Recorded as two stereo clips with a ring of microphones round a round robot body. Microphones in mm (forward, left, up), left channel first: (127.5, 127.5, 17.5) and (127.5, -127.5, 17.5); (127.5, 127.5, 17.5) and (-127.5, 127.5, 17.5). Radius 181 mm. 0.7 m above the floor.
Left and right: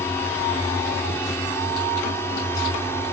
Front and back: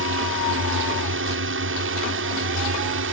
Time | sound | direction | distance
0.0 | a drone | 170° left | ?